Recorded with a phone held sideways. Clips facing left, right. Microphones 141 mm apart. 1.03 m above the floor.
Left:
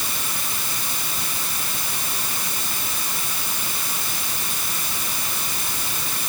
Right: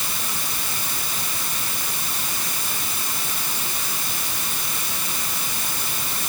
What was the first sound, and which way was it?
Only background noise.